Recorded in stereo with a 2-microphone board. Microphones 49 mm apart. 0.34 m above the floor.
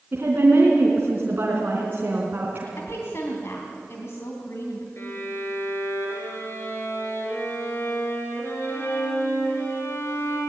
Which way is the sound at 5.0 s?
55° left (ahead or behind).